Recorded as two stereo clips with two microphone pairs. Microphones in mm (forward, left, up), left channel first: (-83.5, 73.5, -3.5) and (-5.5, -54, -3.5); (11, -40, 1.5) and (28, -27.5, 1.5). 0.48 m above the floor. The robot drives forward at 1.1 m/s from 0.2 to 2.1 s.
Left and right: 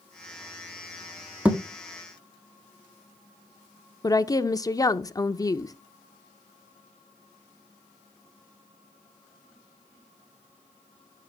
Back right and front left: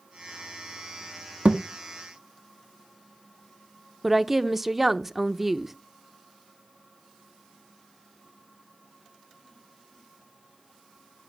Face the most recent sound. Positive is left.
turn(degrees=100)